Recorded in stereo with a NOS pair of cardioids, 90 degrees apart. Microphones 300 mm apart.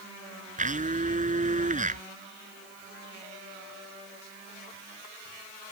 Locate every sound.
0.6 s a blender: 25° right